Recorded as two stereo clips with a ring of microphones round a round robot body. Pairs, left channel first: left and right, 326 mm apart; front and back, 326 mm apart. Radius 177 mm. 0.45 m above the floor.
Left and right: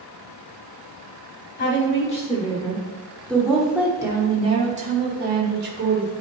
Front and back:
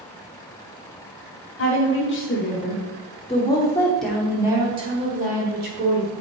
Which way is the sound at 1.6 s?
30° left.